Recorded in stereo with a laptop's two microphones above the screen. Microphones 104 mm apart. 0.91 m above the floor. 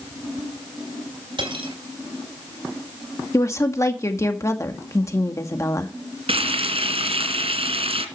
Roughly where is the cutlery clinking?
Right.